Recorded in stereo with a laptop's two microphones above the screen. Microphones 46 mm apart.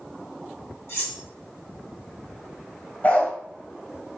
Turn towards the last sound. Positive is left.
turn(degrees=35)  # may be behind; listen again after turning